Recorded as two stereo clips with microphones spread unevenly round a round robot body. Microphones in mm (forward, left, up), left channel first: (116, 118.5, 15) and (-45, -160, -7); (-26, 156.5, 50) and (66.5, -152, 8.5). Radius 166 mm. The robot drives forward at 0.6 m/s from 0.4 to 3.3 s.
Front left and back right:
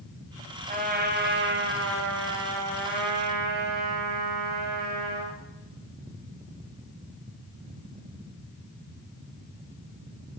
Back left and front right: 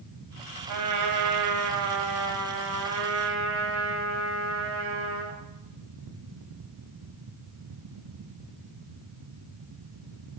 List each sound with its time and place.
0.7 s a trumpet: 60° right, 1.9 m; by 5.4 s 115° right, 1.8 m